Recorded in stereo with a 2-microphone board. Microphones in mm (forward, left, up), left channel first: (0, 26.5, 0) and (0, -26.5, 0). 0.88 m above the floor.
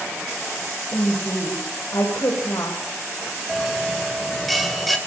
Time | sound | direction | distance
0.9 | a woman speaking | 70° left (ahead or behind) | 5.5 m
3.5 | a bell | centre (ahead or behind) | 3.5 m